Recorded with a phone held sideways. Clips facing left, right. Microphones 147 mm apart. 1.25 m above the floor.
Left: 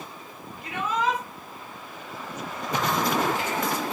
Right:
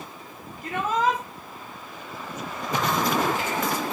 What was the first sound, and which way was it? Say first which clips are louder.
A shout: right 3 dB; 50° right (ahead or behind).